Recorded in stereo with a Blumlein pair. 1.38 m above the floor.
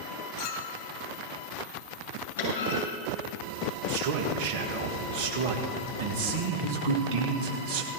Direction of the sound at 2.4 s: 65° left.